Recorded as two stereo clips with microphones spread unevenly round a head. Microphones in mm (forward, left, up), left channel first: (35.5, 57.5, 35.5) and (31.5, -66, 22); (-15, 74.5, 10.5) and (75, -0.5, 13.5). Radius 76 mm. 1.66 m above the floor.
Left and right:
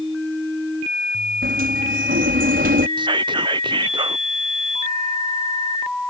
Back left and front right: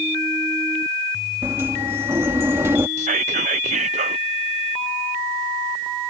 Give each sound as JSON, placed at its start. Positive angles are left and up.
{"t": 1.4, "sound": "a sliding door", "azimuth_deg": -115}
{"t": 3.0, "sound": "whispering", "azimuth_deg": -40}